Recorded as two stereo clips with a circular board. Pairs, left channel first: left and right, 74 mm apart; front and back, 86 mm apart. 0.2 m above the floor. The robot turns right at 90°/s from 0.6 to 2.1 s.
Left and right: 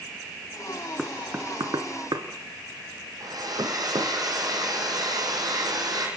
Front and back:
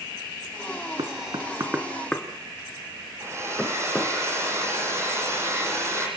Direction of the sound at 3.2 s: 120° right.